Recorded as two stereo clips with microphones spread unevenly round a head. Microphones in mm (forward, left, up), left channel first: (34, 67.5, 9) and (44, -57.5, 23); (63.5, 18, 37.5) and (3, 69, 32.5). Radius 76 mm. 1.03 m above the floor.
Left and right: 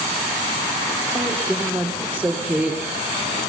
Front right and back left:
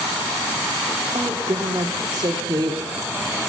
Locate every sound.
1.1 s a woman speaking: 165° right, 2.5 m